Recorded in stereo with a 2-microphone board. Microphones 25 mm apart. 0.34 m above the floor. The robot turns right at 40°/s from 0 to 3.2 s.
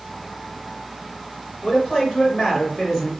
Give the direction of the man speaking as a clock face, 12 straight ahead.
9 o'clock.